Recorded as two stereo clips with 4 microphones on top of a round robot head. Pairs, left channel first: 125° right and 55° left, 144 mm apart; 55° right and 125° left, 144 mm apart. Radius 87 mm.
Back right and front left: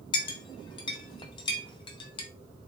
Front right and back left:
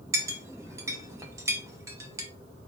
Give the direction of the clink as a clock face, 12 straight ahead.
6 o'clock.